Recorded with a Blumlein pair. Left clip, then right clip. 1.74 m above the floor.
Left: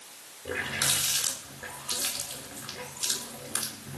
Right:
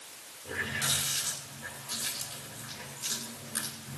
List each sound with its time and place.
0.5 s a running tap: 30° left, 3.5 m